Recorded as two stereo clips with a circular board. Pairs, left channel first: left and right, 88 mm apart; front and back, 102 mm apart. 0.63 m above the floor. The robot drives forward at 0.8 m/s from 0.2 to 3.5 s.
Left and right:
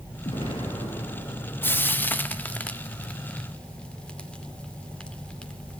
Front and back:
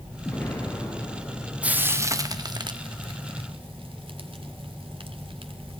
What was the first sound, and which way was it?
An explosion, 75° left.